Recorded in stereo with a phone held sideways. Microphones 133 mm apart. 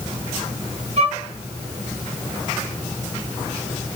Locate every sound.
1.0 s a violin: 55° right (ahead or behind), 3.5 m